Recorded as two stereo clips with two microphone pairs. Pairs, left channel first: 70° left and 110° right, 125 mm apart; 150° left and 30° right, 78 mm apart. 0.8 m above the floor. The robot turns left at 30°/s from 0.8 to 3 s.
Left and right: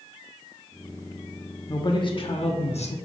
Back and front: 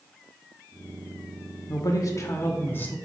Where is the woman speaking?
120° left, 1.2 m; by 3.0 s 85° left, 1.2 m.